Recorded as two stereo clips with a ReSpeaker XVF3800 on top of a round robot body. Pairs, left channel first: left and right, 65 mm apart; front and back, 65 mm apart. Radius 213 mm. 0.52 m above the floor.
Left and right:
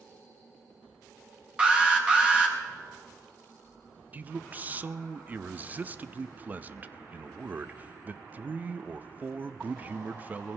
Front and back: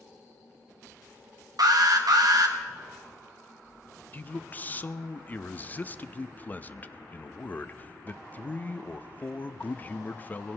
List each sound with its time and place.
1.6 s an alarm: 165° right, 1.7 m
4.1 s a man speaking: 45° right, 0.7 m